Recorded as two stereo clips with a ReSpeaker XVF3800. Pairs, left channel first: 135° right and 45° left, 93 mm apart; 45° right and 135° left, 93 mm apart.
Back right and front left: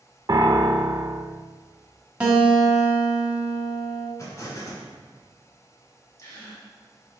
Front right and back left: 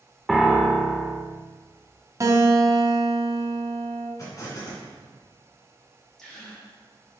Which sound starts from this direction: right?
An explosion, at 4.2 s.